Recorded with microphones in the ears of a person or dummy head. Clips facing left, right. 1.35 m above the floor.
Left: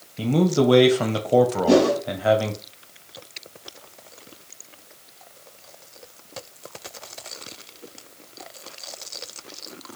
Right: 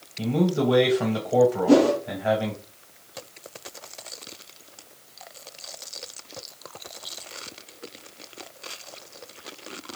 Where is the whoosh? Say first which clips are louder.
Even; 60° left (ahead or behind), 2 m.